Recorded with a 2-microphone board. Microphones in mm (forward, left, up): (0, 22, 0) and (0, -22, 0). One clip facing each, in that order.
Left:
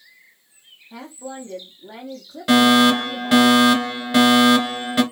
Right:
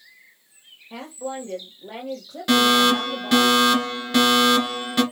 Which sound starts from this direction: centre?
A fire alarm, at 2.5 s.